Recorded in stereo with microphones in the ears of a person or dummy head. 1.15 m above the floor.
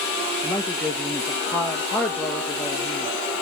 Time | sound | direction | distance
0.4 | a woman speaking | 15° left (ahead or behind) | 1.1 m